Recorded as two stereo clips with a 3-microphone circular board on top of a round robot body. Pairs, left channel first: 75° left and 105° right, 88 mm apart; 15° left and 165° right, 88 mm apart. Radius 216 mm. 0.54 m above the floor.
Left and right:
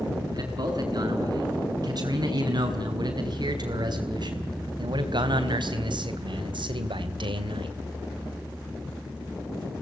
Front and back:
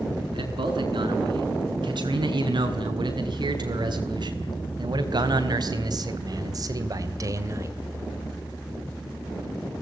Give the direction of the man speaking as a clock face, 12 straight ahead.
5 o'clock.